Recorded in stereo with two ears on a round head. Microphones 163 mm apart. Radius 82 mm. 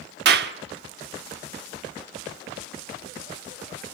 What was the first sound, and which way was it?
A clap, 60° right (ahead or behind).